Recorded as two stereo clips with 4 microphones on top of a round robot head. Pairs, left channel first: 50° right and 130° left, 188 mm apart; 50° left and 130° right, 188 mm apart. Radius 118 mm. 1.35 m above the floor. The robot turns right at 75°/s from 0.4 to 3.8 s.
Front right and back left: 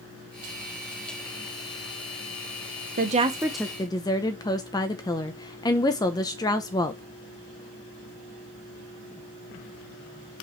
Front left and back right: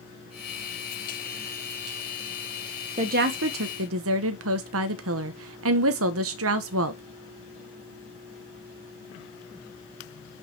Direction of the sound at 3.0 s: 175° left.